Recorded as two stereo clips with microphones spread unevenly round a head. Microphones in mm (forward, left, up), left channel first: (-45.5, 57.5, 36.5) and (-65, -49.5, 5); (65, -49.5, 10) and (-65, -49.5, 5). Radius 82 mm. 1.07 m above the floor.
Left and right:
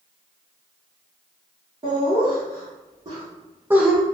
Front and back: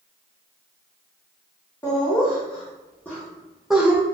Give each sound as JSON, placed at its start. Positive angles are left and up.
{"t": 1.8, "sound": "laughter", "azimuth_deg": -70, "distance_m": 1.8}